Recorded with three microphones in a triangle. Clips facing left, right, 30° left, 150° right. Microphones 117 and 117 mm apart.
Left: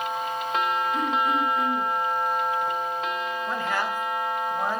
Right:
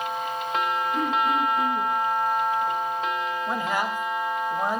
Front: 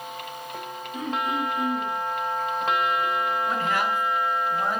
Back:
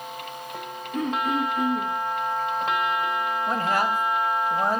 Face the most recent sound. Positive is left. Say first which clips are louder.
# even, back 1 dB
turn(degrees=-160)